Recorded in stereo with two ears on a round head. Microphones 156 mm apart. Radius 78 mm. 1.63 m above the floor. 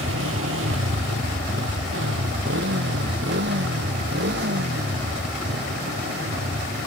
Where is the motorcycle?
85° right; by 6.9 s 60° right (ahead or behind).